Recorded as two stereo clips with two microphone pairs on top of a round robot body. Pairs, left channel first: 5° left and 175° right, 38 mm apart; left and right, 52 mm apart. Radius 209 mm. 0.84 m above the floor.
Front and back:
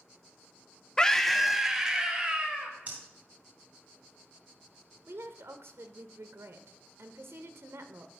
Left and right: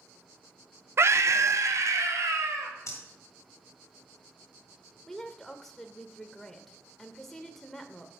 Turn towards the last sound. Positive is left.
turn(degrees=180)